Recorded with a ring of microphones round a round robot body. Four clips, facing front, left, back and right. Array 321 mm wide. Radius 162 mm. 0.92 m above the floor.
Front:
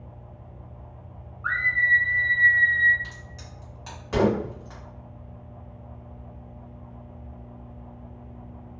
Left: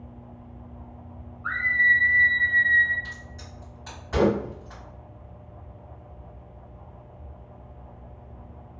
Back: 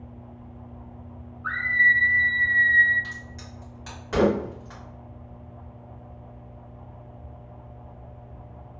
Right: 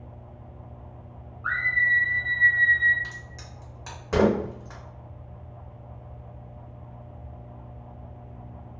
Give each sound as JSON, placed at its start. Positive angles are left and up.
{"t": 1.4, "sound": "a scream", "azimuth_deg": -20, "distance_m": 0.5}
{"t": 3.0, "sound": "a crack", "azimuth_deg": -105, "distance_m": 1.3}